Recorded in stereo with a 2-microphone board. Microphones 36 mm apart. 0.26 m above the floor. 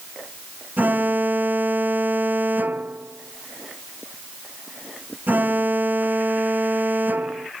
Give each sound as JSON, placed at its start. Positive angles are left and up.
{"t": 0.8, "sound": "an alarm", "side_deg": -55}